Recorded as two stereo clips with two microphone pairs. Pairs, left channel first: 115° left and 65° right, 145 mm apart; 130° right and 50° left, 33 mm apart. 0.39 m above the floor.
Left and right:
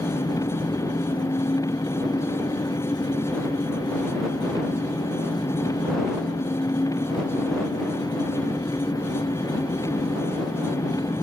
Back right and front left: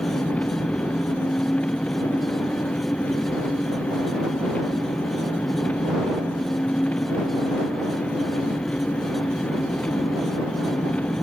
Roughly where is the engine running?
Behind.